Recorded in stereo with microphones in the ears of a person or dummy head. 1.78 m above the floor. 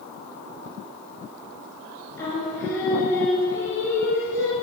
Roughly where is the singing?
Centre.